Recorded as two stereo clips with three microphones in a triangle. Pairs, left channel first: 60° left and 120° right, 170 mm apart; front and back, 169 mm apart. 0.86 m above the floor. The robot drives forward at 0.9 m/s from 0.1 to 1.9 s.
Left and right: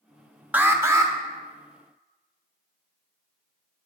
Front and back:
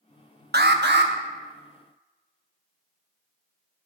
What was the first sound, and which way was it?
An alarm, 160° left.